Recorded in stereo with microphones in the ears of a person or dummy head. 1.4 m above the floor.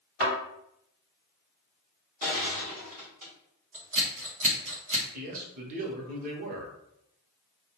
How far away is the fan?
No fan in this recording.